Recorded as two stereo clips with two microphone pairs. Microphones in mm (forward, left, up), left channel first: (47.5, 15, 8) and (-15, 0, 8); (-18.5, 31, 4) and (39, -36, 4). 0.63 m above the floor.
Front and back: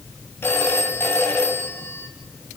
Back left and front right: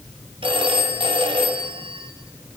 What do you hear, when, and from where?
0.4 s a phone ringing: 40° right, 3.5 m